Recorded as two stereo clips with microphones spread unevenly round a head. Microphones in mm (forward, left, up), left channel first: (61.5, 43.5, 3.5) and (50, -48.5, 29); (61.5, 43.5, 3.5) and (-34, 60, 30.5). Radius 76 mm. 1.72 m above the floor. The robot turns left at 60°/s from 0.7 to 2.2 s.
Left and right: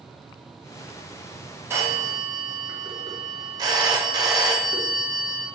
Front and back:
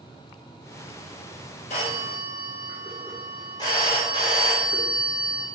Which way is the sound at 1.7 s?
50° right.